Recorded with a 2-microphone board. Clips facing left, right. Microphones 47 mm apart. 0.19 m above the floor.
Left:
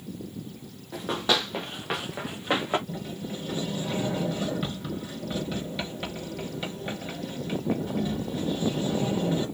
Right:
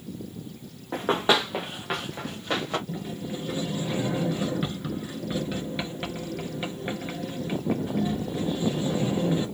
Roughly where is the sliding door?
Centre.